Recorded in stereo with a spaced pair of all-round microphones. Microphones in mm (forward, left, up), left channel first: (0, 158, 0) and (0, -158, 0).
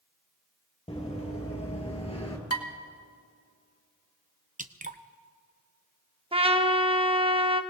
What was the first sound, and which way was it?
Running footsteps, 20° left (ahead or behind).